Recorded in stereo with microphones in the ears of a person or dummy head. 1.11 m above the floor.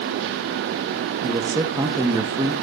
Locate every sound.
1.2 s a man speaking: 15° right (ahead or behind), 0.8 m